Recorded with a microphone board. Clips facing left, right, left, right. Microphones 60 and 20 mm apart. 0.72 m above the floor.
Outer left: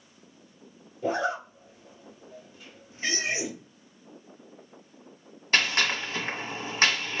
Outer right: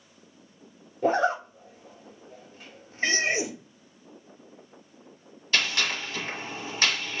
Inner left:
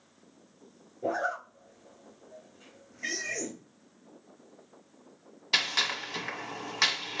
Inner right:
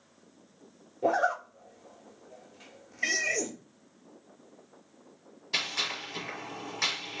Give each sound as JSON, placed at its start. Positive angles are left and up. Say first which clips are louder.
{"t": 1.0, "sound": "a zipper", "louder": "outer right 4 dB, inner right 4 dB", "side_deg": -50, "distance_m": 0.9}
{"t": 3.0, "sound": "a cat meowing", "louder": "outer right 4 dB, inner right 5 dB", "side_deg": -60, "distance_m": 1.3}
{"t": 5.5, "sound": "a gunshot", "louder": "outer left 2 dB, inner left 4 dB", "side_deg": 40, "distance_m": 1.3}